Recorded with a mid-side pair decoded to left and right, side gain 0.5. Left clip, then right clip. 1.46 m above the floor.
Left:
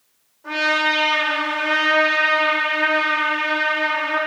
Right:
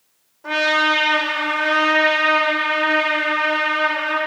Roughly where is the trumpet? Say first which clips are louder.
Right 2 dB; ahead right.